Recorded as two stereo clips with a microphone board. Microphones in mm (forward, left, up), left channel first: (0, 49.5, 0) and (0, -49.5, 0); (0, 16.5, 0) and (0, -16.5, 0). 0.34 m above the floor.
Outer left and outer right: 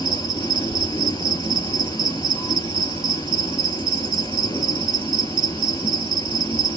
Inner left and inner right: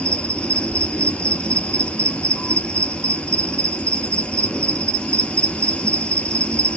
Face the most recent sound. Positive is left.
turn(degrees=45)  # may be behind; listen again after turning